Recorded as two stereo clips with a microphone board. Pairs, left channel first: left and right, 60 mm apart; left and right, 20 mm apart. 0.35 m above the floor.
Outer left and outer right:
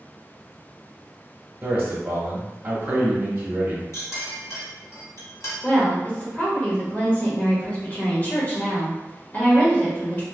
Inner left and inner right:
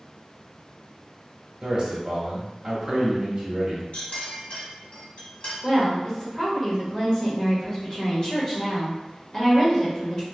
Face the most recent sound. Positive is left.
turn(degrees=25)  # may be behind; listen again after turning